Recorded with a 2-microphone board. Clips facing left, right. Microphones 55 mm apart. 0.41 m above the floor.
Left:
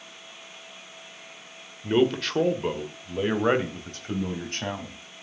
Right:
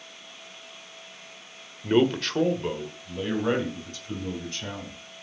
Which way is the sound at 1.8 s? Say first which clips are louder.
Even; 15° right (ahead or behind).